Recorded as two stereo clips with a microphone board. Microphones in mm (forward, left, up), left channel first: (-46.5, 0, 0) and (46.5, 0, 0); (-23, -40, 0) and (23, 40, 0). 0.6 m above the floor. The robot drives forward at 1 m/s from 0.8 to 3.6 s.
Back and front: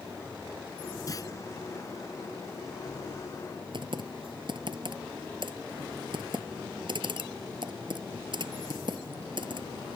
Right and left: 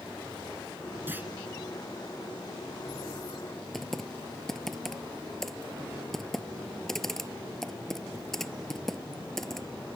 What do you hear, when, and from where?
1.1 s a clunk: 130° left
3.7 s typing on a keyboard: 35° right